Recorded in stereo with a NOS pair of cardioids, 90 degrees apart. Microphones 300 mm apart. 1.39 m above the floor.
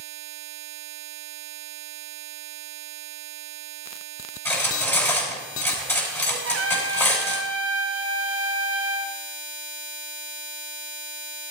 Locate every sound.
4.5 s cutlery clinking: 5° left, 7.5 m
6.5 s a trumpet: 50° right, 1.4 m